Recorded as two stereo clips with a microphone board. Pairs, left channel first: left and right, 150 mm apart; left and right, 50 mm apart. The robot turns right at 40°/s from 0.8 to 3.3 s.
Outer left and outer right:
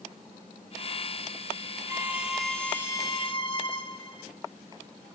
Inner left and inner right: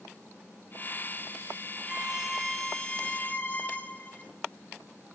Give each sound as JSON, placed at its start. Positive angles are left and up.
{"t": 1.9, "sound": "a violin", "azimuth_deg": -20, "distance_m": 0.8}